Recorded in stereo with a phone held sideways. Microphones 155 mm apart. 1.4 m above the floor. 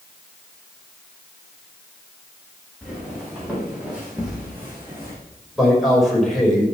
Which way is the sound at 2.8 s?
Centre (ahead or behind).